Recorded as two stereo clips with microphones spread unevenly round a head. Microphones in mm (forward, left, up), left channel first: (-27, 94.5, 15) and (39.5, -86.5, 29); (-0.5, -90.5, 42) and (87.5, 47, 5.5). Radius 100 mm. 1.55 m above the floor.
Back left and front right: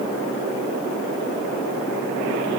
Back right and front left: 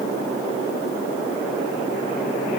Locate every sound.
Only background noise.